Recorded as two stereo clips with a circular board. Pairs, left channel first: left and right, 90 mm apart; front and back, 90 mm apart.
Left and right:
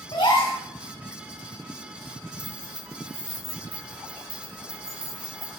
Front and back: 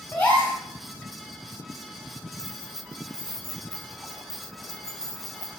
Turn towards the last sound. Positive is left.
turn(degrees=-85)